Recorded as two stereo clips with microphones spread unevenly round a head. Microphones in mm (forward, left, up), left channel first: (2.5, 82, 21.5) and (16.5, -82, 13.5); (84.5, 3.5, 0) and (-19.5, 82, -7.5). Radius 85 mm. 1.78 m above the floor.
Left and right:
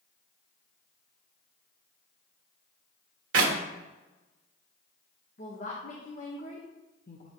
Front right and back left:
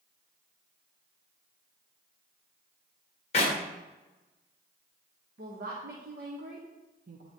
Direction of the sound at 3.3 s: 90° right.